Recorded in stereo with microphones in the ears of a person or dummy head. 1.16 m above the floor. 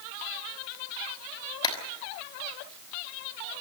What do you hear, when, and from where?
1.6 s a clap: 30° left (ahead or behind), 5 m